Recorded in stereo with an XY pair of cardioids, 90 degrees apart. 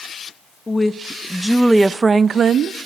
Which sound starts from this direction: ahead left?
A woman speaking, at 0.7 s.